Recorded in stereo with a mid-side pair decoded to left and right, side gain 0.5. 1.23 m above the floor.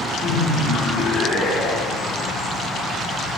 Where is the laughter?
55° left, 2.5 m.